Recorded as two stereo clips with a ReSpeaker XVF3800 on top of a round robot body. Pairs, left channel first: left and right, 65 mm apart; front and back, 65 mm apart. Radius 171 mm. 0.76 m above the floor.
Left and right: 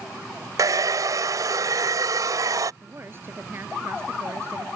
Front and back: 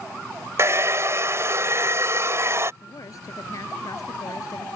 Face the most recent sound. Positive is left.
turn(degrees=-35)